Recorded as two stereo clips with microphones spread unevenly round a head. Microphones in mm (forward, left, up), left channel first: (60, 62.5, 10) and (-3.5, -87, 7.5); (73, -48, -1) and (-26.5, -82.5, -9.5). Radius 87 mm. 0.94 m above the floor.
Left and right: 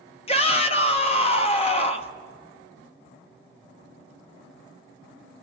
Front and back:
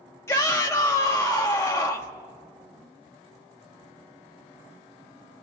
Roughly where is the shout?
Left.